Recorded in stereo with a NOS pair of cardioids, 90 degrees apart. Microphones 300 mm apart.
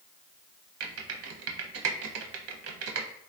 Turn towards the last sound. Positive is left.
turn(degrees=-50)